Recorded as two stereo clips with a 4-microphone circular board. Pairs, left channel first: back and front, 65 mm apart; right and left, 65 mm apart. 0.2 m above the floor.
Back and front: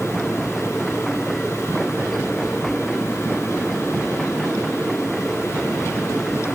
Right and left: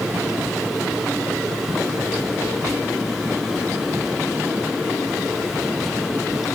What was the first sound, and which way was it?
Only background noise.